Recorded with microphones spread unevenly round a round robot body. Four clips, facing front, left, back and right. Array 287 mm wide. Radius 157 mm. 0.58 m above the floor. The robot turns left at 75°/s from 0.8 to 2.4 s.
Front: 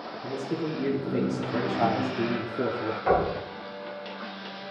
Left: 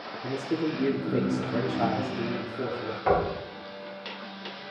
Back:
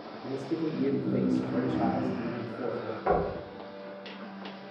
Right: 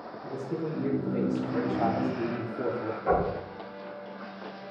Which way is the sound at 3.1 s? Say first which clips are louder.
Left 2 dB, front 3 dB; 85° left.